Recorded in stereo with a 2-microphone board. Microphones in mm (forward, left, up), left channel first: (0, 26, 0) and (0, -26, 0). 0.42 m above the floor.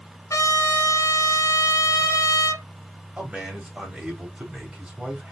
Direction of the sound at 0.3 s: 80° left.